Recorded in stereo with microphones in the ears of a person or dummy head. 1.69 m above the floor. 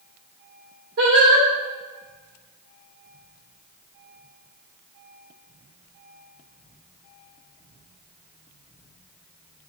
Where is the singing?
60° right (ahead or behind), 1.6 m.